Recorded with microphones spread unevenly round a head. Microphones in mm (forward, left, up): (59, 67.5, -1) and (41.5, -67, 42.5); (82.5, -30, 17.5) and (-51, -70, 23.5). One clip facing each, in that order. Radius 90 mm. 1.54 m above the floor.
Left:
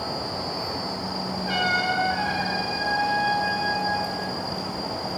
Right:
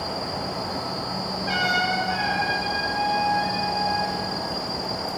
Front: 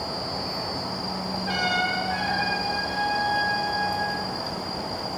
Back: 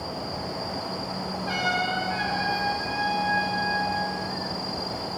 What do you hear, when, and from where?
1.5 s a trumpet: 100° right, 1.8 m